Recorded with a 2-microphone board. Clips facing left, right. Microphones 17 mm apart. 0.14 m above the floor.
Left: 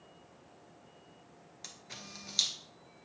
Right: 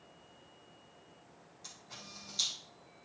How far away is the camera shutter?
About 1.6 m.